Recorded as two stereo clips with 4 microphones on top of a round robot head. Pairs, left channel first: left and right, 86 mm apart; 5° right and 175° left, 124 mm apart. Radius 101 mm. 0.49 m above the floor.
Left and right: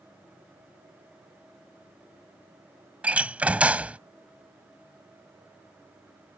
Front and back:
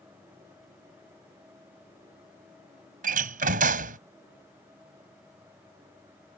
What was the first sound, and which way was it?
A door slam, 165° right.